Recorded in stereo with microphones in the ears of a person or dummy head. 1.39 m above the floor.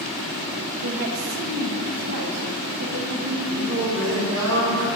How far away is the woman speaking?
About 1.9 m.